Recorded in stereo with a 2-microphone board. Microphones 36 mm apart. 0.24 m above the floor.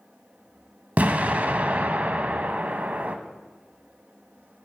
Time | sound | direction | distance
1.0 | an explosion | 50° right (ahead or behind) | 0.5 m